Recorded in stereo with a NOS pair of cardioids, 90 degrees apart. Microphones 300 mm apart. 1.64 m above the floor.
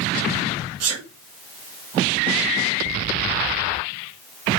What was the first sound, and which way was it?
A sneeze, 60° right.